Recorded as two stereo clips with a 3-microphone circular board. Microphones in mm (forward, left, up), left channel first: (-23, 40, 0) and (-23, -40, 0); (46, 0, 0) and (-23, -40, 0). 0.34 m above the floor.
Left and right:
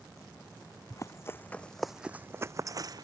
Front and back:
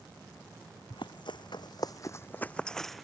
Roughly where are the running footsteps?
Ahead left.